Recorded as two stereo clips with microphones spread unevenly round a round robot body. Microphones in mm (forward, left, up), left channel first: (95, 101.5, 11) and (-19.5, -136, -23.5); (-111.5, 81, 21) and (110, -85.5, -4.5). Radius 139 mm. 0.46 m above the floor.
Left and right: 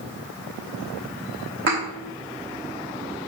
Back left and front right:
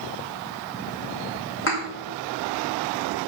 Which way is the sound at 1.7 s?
170° right.